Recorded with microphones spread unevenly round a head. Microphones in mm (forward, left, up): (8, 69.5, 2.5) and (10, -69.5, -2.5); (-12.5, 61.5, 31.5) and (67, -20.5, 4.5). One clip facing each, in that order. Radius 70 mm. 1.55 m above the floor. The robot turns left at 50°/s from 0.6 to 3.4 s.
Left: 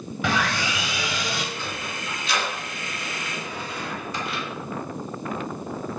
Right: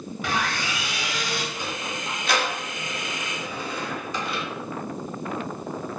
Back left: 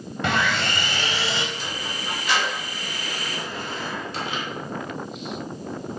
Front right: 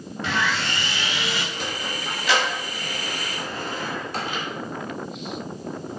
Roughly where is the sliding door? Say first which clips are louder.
Right 1 dB, front right 2 dB; ahead.